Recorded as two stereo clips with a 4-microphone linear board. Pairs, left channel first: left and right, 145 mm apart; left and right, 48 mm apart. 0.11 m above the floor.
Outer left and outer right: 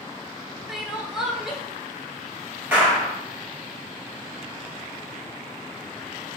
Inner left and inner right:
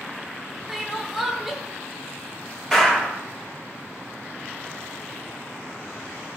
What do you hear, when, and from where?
0.7 s crying: 5° right (ahead or behind), 0.6 m
2.7 s a clap: 10° right (ahead or behind), 1.5 m